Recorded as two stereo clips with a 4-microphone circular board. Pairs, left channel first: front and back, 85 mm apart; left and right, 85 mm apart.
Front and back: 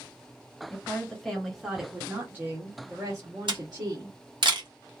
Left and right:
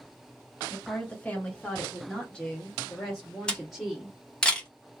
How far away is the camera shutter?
About 1.0 m.